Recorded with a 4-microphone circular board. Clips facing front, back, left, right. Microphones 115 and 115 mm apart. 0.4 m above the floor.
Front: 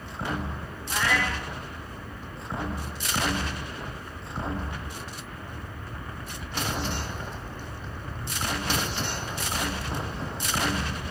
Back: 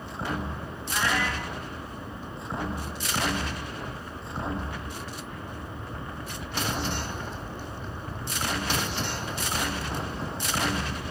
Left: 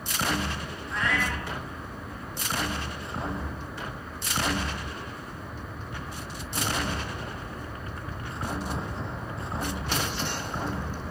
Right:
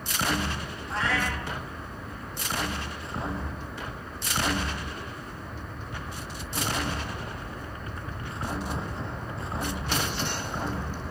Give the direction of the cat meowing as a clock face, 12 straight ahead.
1 o'clock.